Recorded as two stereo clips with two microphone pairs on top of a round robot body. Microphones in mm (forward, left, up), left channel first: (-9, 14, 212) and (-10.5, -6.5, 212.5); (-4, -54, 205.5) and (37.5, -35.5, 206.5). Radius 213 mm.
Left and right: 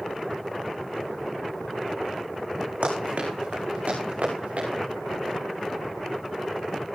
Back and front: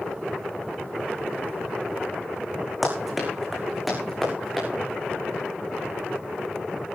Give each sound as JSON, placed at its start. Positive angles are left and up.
{"t": 2.8, "sound": "running footsteps", "azimuth_deg": -65, "distance_m": 5.0}